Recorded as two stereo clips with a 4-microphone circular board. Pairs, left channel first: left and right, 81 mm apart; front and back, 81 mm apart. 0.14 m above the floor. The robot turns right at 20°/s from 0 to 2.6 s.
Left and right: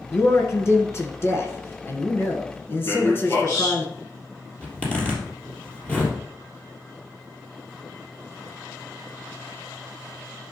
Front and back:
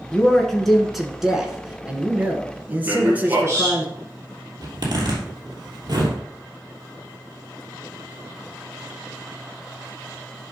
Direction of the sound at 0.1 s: 75° left.